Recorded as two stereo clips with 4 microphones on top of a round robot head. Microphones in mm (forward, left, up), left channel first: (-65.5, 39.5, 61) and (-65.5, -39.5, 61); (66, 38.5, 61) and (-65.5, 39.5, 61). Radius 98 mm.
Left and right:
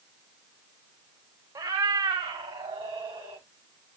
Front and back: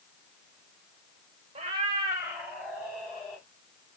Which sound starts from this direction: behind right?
A cat meowing, at 1.6 s.